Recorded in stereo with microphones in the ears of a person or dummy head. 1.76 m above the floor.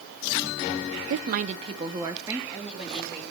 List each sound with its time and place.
1.1 s a woman speaking: 65° right (ahead or behind), 0.9 m; by 3.2 s 5° right (ahead or behind), 3.5 m